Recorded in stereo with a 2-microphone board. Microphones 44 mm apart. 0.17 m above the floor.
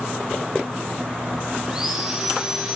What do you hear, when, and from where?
1.7 s sawing: 20° right (ahead or behind), 5.5 m